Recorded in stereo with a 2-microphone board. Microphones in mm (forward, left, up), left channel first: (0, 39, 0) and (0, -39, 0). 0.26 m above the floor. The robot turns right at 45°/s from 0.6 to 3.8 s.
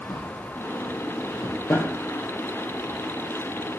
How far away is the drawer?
About 2.5 m.